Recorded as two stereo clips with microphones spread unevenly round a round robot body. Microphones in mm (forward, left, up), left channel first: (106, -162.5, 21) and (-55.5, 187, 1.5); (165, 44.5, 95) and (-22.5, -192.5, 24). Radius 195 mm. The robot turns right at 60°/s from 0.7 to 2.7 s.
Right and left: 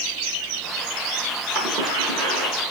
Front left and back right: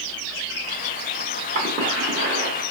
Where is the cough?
165° right, 1.0 m; by 2.7 s 95° right, 1.0 m.